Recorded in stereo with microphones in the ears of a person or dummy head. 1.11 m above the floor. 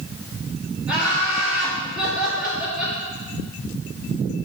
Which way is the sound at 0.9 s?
5° right (ahead or behind).